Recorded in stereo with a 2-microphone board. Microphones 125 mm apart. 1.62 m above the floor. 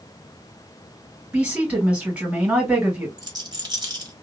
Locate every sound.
1.3 s a woman speaking: 10° right (ahead or behind), 2 m
3.2 s a rattle: 35° right (ahead or behind), 1.3 m